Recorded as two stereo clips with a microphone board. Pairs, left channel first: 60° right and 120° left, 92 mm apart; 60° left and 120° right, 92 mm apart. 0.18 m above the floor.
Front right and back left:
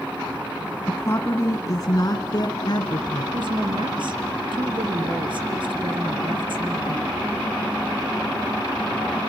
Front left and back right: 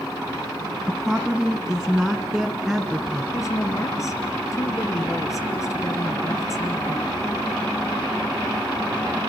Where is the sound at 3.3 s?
110° left, 2.5 m.